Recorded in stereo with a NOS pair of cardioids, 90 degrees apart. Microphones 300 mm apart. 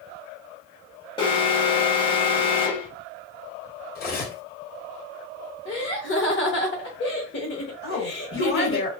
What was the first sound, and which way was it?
An alarm, 20° left.